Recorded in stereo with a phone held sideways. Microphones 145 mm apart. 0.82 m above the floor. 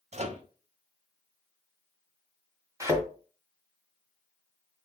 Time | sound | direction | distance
0.1 | a microwave | 50° right (ahead or behind) | 0.6 m
2.8 | a thud | 20° right (ahead or behind) | 1.4 m